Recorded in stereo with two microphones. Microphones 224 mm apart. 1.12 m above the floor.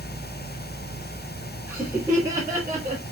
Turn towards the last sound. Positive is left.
turn(degrees=-20)  # may be behind; listen again after turning